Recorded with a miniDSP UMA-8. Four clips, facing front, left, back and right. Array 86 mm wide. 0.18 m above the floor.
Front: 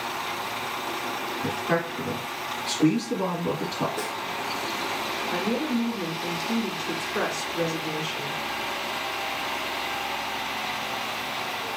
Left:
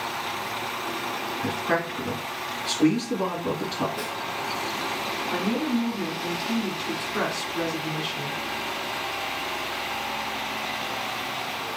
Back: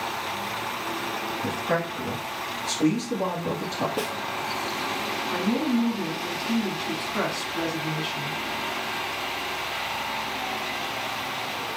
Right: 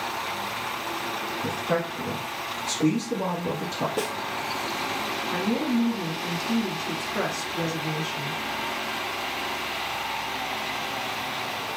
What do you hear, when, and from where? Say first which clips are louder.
1.4 s a man speaking: left 1 dB, front 1 dB; 85° left, 1.2 m
4.0 s a snare drum: right 3 dB, back 2 dB; 130° right, 0.6 m
5.3 s a woman speaking: right 1 dB, back 2 dB; 130° left, 1.2 m